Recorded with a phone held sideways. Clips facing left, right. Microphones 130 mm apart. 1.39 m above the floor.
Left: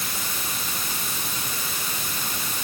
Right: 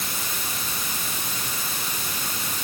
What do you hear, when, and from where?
Only background noise.